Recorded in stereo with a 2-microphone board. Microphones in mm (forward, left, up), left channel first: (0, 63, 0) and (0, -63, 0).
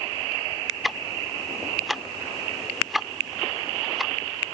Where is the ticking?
Centre (ahead or behind).